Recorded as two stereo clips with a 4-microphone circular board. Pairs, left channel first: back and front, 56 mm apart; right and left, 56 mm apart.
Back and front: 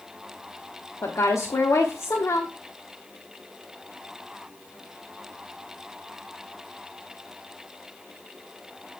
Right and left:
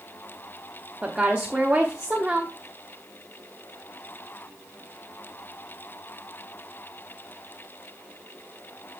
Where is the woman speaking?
160° left, 1.1 m.